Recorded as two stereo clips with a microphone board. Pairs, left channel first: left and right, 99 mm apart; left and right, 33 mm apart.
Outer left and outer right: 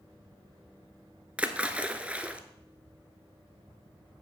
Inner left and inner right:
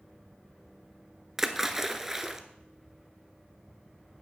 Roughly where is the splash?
Centre.